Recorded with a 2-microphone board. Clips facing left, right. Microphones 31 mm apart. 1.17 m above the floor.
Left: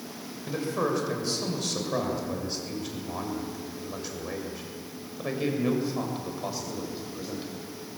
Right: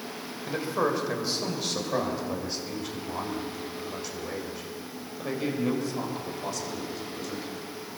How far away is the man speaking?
About 7 m.